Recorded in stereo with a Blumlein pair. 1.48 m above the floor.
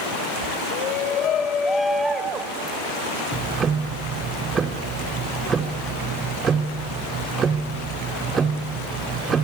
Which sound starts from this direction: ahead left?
A shout, at 0.7 s.